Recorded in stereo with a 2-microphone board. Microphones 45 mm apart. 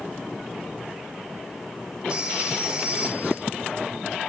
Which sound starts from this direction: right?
A phone ringing, at 2.1 s.